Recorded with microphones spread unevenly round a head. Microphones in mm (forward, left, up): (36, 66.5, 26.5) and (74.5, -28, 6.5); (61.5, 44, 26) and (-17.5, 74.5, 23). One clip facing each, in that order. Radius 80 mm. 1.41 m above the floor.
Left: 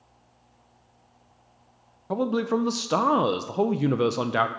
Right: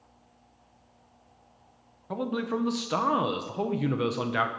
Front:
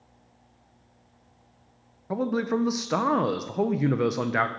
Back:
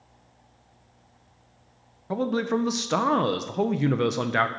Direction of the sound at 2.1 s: 65° left.